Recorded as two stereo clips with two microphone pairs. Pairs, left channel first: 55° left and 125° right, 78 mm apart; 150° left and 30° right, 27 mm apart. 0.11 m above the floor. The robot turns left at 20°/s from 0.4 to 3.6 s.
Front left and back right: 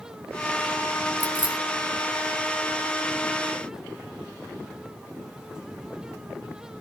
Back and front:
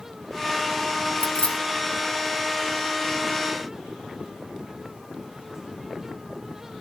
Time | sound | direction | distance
1.2 | keys jangling | 170° left | 1.2 m